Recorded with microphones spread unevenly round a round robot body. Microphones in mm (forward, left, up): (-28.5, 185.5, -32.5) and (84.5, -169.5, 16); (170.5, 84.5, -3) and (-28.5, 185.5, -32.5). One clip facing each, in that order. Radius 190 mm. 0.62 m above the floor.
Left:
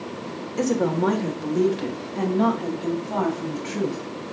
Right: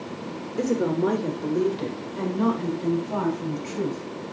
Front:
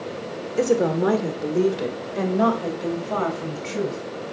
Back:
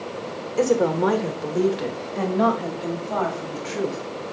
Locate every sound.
0.6 s a woman speaking: 45° left, 1.6 m; by 4.0 s 20° left, 3.5 m